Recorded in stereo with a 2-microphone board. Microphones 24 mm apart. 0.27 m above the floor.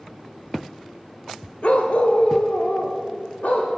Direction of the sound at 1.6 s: 55° left (ahead or behind).